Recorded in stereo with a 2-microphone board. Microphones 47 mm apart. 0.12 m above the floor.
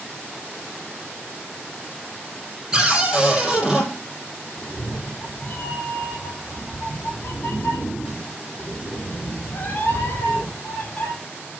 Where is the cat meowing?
50° left (ahead or behind), 5.5 m.